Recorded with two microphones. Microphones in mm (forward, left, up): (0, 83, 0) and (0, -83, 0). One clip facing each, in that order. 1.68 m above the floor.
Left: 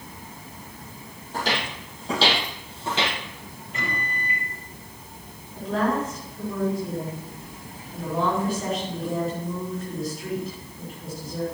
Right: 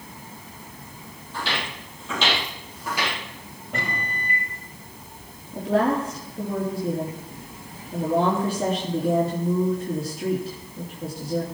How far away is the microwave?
About 7 m.